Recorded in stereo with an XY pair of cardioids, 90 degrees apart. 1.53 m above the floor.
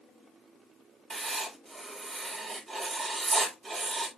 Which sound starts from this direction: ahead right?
Writing, at 1.1 s.